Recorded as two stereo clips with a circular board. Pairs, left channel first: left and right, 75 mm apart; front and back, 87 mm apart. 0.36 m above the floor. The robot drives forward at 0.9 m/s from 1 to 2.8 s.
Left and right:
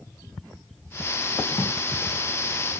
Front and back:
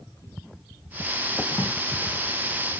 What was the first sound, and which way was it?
A drawer, 55° left.